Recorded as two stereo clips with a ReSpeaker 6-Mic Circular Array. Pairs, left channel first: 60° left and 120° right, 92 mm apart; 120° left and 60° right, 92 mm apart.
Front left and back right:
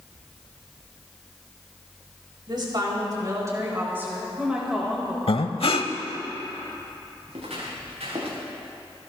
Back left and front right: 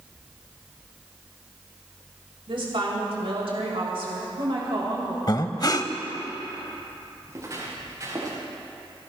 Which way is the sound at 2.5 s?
85° right.